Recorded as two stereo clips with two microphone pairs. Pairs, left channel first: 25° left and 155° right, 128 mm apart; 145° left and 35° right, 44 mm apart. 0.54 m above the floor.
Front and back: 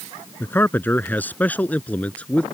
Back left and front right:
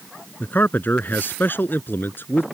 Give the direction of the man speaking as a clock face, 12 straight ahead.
9 o'clock.